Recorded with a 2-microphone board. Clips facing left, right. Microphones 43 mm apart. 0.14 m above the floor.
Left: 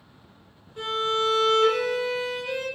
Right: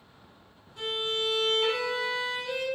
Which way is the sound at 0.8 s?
30° left (ahead or behind).